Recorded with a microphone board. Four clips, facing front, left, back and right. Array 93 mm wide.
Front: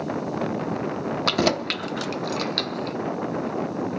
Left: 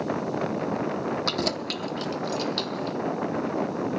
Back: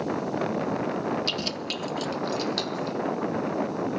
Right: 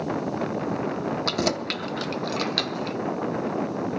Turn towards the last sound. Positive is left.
turn(degrees=-75)